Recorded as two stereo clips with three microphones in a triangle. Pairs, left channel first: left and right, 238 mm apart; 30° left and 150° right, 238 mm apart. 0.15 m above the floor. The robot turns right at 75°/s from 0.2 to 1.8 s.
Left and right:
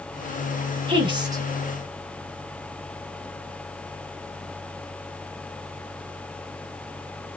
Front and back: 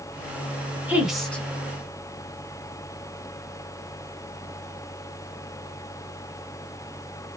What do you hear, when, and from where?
0.9 s a woman speaking: 80° right, 1.7 m; by 1.4 s 35° right, 1.7 m